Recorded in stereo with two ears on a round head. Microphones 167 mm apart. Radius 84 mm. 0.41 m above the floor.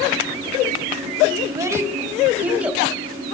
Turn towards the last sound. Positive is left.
turn(degrees=-5)  # may be behind; listen again after turning